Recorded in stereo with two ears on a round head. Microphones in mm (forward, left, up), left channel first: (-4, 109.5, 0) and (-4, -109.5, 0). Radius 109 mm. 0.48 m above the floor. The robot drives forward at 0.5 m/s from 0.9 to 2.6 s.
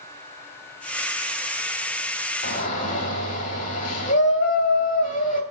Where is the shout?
35° left (ahead or behind), 1.4 m.